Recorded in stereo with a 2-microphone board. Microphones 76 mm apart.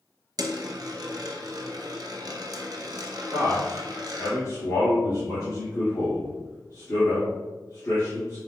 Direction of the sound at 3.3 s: 45° left (ahead or behind).